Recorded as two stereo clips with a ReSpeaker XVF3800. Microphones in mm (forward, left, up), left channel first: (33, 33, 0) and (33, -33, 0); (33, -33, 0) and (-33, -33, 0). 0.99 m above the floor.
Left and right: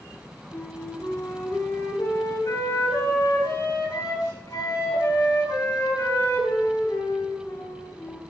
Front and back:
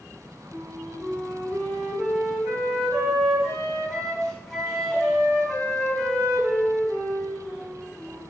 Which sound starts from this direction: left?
A flute, at 0.5 s.